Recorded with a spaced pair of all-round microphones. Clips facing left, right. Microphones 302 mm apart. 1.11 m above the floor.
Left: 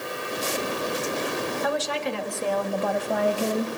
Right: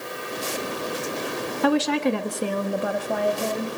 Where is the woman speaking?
80° right, 1.7 m; by 3.8 s 15° left (ahead or behind), 2.5 m.